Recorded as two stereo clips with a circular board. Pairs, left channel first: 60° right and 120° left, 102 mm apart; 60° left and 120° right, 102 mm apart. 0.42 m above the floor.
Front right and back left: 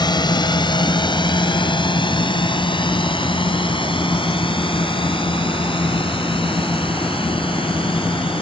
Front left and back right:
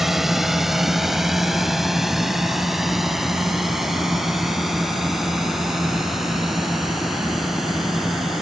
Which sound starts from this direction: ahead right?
A drone, at 0.0 s.